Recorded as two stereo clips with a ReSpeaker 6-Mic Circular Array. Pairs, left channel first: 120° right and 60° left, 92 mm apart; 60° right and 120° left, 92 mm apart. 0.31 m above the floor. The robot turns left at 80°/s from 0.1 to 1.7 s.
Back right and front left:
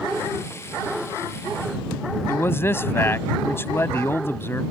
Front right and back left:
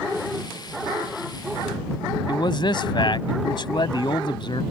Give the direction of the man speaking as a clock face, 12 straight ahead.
2 o'clock.